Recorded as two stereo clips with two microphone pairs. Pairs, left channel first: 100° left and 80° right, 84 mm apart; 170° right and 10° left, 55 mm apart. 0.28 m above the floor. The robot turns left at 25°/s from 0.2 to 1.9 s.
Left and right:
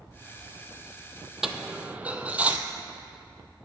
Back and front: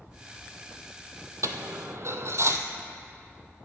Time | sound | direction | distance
1.4 | a dropped coin | straight ahead | 0.6 m